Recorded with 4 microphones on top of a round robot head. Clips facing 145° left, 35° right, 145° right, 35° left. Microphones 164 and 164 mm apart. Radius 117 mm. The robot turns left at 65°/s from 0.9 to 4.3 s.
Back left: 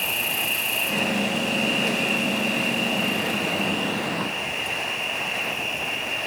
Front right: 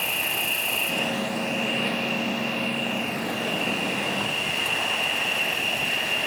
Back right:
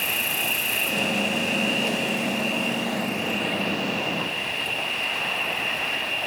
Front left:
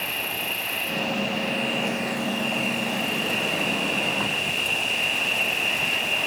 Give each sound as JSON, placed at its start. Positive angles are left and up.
{"t": 0.0, "sound": "an insect", "azimuth_deg": -125, "distance_m": 1.2}